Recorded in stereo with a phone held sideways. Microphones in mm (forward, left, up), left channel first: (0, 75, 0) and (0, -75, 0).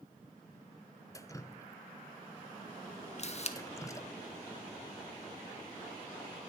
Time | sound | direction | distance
1.1 | dripping | 20° left (ahead or behind) | 0.5 m
3.2 | a camera shutter | 45° left (ahead or behind) | 0.8 m